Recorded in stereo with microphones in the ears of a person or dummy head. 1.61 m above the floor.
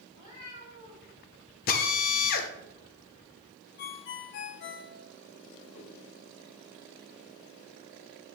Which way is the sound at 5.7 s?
40° left (ahead or behind).